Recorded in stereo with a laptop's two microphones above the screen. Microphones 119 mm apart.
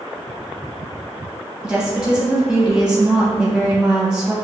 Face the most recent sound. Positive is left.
turn(degrees=-5)  # may be behind; listen again after turning